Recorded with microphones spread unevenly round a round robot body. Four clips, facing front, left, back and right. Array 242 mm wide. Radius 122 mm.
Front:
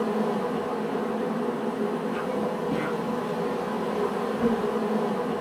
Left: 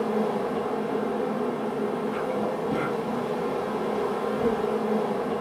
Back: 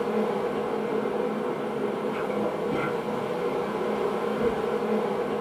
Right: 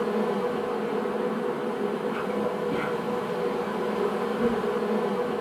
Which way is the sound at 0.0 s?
70° left.